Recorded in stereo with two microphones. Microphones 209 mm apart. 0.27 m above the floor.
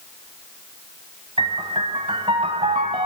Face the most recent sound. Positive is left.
turn(degrees=-30)  # may be behind; listen again after turning